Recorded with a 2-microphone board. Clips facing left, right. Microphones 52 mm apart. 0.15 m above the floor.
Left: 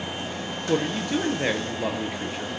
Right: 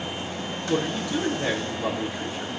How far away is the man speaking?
About 2.5 m.